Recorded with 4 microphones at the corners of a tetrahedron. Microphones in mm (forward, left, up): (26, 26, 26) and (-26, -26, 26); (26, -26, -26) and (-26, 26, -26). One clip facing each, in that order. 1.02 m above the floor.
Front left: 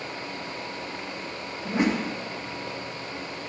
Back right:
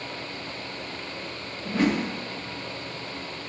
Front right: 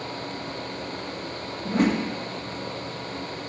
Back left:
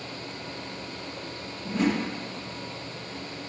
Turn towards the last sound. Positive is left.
turn(degrees=-20)